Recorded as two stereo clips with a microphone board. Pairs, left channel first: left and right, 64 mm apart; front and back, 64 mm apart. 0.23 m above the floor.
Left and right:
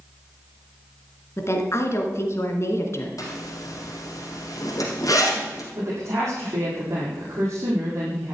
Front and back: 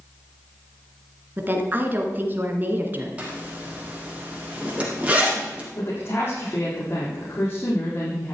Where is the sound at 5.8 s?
50° right, 7 m.